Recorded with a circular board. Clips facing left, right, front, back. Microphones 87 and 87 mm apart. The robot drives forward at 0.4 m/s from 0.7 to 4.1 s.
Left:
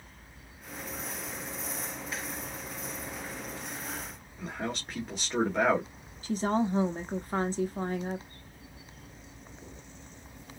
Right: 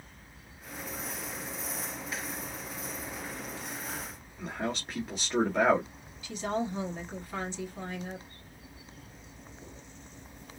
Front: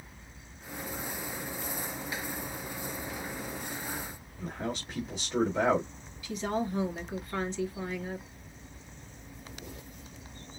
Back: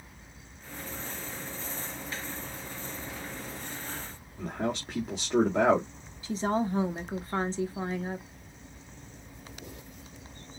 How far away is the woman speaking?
About 0.9 m.